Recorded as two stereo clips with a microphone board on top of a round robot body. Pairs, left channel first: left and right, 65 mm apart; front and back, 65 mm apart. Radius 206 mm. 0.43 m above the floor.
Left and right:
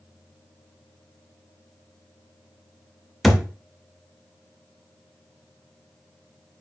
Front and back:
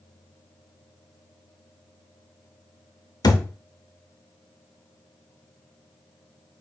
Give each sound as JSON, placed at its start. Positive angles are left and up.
{"t": 3.2, "sound": "a thud", "azimuth_deg": 0, "distance_m": 0.7}